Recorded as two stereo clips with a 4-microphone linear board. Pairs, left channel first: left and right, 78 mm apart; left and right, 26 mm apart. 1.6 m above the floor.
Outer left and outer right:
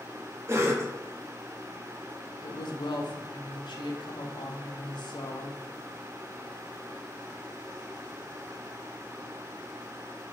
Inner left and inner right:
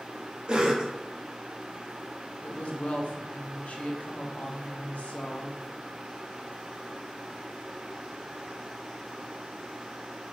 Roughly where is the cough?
Right.